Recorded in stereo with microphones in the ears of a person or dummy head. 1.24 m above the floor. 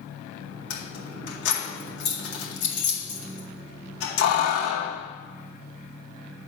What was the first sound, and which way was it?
Keys jangling, 70° left (ahead or behind).